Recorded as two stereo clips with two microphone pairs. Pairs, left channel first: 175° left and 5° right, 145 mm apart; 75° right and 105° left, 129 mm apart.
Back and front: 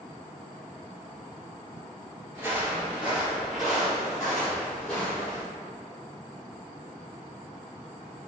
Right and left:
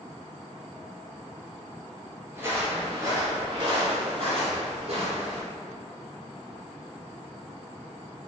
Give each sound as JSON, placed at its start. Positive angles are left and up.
{"t": 2.3, "sound": "footsteps", "azimuth_deg": 45, "distance_m": 1.8}